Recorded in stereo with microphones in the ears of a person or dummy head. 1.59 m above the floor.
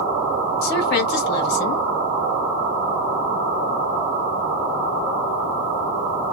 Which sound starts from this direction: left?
A woman speaking, at 0.6 s.